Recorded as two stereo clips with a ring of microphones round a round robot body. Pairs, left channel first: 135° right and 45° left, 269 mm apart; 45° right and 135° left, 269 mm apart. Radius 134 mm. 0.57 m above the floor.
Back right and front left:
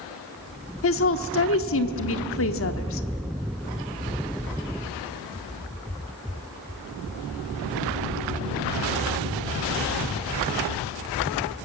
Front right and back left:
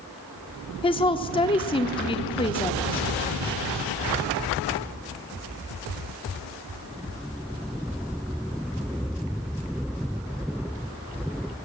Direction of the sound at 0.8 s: 110° right.